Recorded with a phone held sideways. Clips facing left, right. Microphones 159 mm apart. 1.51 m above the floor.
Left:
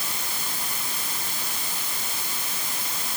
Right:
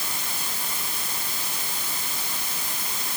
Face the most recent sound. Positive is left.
No sound to turn to.